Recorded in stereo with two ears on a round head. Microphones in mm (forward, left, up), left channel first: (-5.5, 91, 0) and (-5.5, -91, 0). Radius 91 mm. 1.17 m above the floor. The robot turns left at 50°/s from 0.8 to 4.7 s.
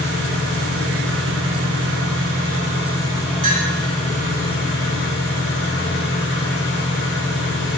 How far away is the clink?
About 1.3 m.